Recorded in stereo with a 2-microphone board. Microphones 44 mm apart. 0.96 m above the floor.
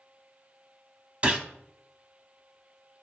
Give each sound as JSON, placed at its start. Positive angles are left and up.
{"t": 1.2, "sound": "a gunshot", "side_deg": -25, "distance_m": 0.9}